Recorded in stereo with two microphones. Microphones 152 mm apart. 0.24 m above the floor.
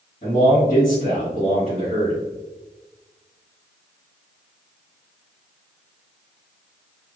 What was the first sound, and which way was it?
A man speaking, 50° left (ahead or behind).